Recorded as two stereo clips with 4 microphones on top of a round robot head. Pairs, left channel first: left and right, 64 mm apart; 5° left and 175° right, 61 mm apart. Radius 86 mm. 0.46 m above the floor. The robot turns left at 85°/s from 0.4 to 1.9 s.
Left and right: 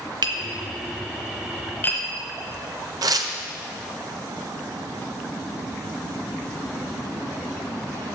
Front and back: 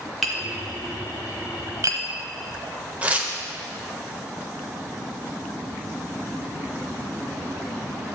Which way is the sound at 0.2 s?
85° right.